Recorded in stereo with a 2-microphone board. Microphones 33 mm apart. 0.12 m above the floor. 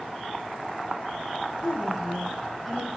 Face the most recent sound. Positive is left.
turn(degrees=-5)  # may be behind; listen again after turning